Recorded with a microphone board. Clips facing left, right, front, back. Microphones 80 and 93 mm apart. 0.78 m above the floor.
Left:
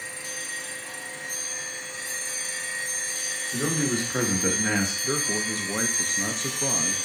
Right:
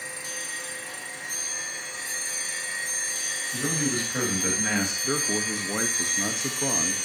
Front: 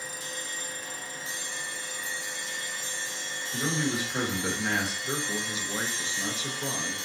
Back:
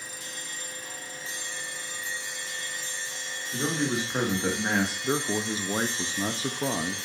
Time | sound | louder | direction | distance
3.5 | a man speaking | left 2 dB, back 2 dB | 120° left | 1.3 m
5.0 | a man speaking | even, back 5 dB | 170° right | 0.5 m